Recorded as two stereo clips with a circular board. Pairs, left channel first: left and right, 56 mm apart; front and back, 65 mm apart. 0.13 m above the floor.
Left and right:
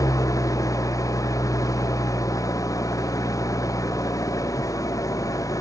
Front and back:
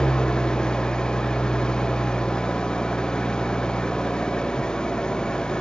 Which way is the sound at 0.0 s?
80° left.